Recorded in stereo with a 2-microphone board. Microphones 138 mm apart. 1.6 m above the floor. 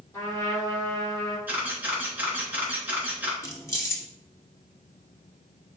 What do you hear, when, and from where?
0.1 s a trumpet: 20° left (ahead or behind), 3 m
1.5 s a camera shutter: 15° right (ahead or behind), 2.5 m
3.4 s keys jangling: 20° left (ahead or behind), 1.3 m